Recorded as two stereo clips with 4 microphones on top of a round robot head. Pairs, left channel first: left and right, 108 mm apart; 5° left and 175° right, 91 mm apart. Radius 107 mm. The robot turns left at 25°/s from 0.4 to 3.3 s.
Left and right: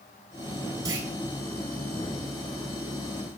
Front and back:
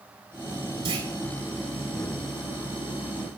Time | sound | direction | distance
0.8 | a clunk | 145° right | 4.5 m